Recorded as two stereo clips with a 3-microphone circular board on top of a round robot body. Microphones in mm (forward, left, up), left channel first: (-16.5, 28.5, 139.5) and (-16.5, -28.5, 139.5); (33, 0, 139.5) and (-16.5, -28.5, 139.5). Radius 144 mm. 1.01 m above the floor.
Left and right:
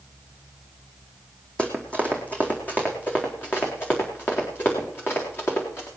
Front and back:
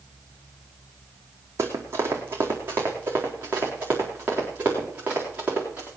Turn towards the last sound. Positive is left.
turn(degrees=145)